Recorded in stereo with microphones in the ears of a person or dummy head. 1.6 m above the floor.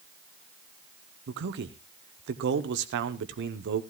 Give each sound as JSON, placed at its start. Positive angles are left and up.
{"t": 1.3, "sound": "a man speaking", "side_deg": -60, "distance_m": 0.9}